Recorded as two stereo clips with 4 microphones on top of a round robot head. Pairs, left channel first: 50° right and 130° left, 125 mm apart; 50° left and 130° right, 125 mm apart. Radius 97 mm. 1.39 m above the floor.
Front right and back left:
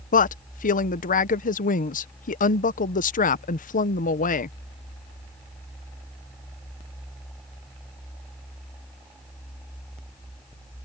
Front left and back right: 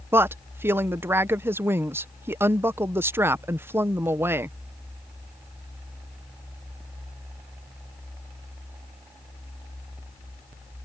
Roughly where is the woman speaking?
Ahead right.